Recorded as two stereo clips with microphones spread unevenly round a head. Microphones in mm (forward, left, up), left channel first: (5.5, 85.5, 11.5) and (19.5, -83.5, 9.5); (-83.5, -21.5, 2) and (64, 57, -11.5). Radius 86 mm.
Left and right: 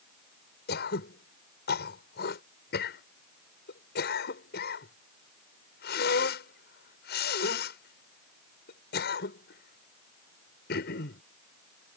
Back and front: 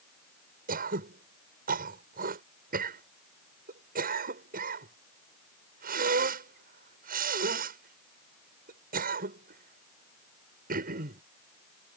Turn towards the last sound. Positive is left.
turn(degrees=65)